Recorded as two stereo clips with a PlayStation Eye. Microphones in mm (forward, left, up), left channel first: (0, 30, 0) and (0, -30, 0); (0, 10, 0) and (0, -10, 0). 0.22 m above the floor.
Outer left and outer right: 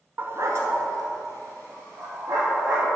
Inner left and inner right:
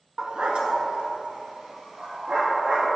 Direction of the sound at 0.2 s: 40° right (ahead or behind).